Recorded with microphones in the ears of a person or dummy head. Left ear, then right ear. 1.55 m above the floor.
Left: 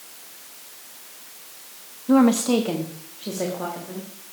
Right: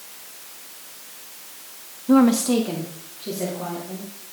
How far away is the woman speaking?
About 0.5 m.